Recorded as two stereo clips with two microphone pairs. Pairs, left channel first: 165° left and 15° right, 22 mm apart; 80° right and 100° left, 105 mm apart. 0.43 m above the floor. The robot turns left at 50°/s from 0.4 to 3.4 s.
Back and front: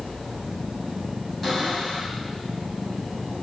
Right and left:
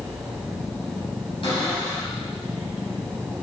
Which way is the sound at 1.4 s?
110° right.